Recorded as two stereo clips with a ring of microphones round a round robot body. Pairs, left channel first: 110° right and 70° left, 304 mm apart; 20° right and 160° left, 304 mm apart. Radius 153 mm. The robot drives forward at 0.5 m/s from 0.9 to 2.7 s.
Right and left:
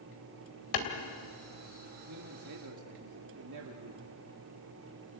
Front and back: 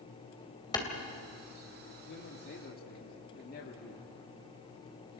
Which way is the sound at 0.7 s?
100° right.